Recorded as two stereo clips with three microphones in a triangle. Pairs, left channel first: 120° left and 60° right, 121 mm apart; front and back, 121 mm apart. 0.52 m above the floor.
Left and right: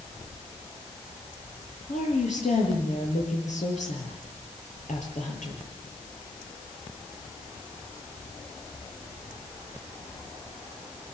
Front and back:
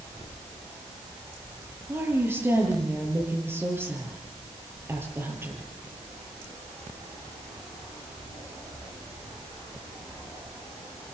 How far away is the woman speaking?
About 9.5 m.